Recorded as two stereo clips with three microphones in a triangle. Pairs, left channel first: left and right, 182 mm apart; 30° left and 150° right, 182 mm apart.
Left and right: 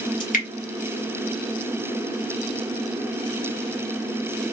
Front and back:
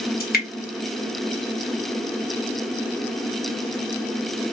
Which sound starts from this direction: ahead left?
Dripping, at 0.2 s.